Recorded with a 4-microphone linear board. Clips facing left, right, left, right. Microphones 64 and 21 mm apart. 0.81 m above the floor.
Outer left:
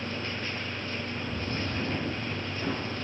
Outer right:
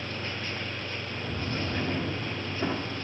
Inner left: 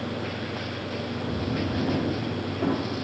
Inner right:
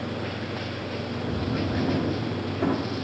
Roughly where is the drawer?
Right.